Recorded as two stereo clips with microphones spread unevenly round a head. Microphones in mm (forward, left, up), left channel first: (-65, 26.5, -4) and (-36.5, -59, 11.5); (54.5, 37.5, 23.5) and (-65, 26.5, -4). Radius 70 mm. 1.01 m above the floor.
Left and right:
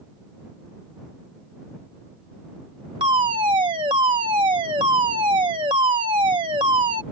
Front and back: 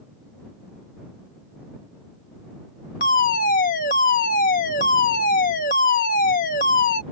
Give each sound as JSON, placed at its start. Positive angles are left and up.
{"t": 3.0, "sound": "a fire alarm", "azimuth_deg": -20}